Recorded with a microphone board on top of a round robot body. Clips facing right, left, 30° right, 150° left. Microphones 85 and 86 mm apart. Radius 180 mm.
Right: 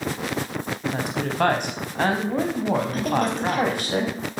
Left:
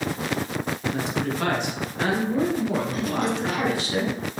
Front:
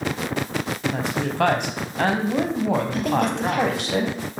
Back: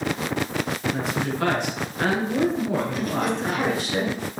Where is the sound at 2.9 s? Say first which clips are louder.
Right 2 dB, front 3 dB; 45° right, 4.5 m.